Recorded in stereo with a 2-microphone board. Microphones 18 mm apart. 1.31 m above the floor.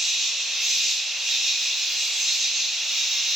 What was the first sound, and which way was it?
An insect, 40° right (ahead or behind).